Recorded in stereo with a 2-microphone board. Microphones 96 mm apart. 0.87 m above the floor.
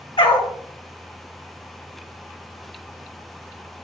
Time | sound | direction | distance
0.2 | a dog barking | 60° left (ahead or behind) | 1.5 m